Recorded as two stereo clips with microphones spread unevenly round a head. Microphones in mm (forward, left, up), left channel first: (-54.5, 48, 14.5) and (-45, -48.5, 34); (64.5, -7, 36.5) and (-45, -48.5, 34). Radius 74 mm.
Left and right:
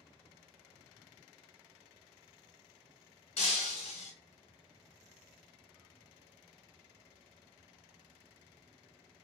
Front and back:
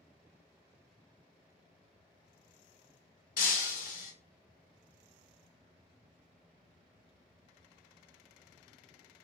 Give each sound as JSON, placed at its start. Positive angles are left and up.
{"t": 3.4, "sound": "breaking glass", "azimuth_deg": 40, "distance_m": 0.8}